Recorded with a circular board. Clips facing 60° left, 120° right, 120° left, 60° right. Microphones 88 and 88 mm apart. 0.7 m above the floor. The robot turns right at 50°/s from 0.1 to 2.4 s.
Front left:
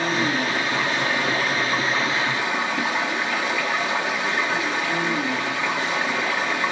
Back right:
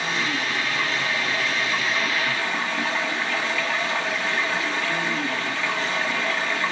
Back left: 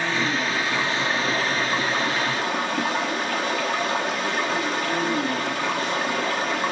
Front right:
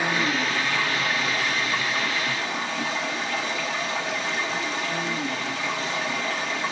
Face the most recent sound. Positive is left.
turn(degrees=130)